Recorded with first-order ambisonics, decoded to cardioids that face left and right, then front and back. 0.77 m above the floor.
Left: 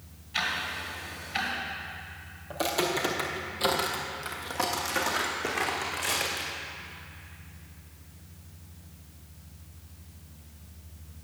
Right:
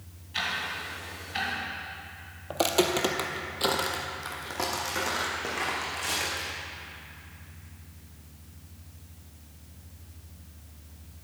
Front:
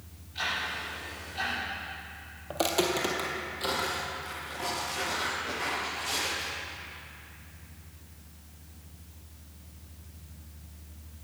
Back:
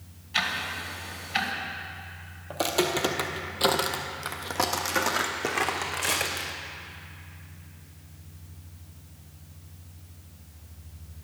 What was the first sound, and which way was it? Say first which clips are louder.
Ticking: left 1 dB, back 4 dB; 170° left.